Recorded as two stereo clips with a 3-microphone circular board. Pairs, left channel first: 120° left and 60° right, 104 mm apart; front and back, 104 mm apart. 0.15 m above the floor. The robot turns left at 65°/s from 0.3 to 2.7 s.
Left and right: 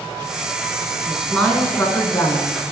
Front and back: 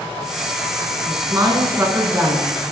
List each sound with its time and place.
1.1 s a woman speaking: 150° right, 1.2 m; by 2.5 s 115° left, 1.2 m